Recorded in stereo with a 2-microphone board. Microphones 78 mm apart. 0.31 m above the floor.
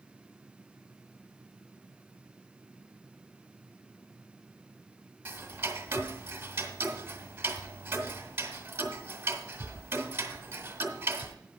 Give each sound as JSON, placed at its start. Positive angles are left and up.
{"t": 5.2, "sound": "ticking", "side_deg": -30, "distance_m": 1.6}